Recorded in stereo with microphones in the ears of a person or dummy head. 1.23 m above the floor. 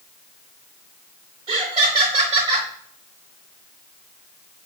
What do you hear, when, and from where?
1.5 s laughter: 20° right (ahead or behind), 0.6 m